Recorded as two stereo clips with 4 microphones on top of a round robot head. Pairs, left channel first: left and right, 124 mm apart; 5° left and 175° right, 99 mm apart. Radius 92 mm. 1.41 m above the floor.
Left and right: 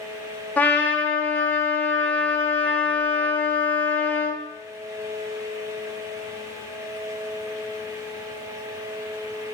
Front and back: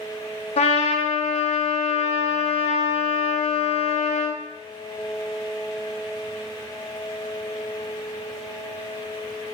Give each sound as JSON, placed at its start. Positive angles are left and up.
{"t": 0.6, "sound": "a trumpet", "azimuth_deg": 15, "distance_m": 0.5}